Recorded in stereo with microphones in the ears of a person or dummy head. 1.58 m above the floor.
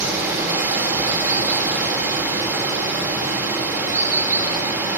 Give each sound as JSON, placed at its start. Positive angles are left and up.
{"t": 0.0, "sound": "running water", "side_deg": -15, "distance_m": 2.0}